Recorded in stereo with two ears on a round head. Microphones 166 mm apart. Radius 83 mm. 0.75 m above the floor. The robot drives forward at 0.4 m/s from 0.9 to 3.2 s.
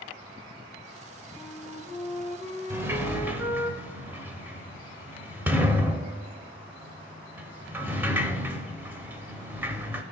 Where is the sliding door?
15° right (ahead or behind), 0.6 m; by 10.0 s 10° right (ahead or behind), 0.7 m.